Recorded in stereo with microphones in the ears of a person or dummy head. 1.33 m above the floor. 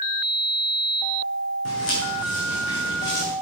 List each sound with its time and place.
1.6 s footsteps: 75° left (ahead or behind), 5 m; by 3.3 s 55° left (ahead or behind), 5 m